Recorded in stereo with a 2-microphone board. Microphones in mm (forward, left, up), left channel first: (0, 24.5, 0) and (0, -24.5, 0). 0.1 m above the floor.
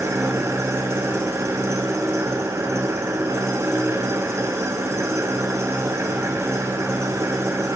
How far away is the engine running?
About 3 m.